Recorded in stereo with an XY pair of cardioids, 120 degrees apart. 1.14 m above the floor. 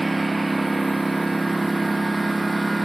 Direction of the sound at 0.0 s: 10° right.